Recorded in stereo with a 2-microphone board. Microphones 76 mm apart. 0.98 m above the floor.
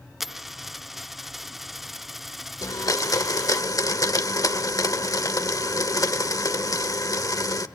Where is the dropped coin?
Centre (ahead or behind), 0.6 m.